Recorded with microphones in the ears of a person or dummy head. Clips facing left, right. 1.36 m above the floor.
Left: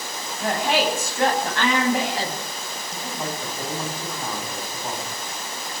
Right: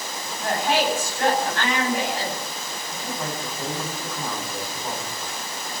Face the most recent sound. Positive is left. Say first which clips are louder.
# even
turn(degrees=10)  # may be behind; listen again after turning